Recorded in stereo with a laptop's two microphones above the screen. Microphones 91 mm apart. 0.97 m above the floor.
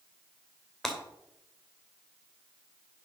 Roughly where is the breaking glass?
Centre.